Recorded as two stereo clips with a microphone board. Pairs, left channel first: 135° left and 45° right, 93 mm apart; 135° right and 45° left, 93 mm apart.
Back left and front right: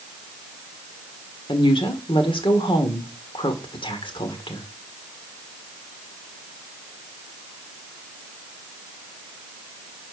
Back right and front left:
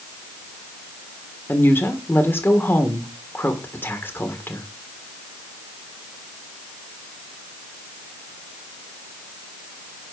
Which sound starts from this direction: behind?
A woman speaking, at 1.5 s.